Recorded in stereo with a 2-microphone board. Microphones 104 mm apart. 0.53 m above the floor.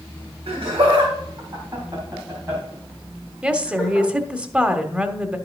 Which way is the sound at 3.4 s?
10° right (ahead or behind).